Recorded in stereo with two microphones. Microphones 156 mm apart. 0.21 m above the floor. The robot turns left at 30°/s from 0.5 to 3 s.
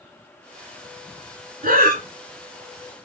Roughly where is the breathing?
Right.